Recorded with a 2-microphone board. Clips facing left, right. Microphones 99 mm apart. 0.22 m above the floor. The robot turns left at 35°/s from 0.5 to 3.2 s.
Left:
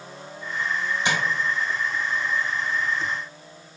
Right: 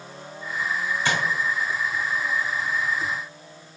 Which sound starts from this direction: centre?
Tapping, at 1.1 s.